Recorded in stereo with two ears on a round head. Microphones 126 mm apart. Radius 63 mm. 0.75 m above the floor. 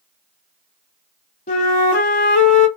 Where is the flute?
60° left (ahead or behind), 1.2 m.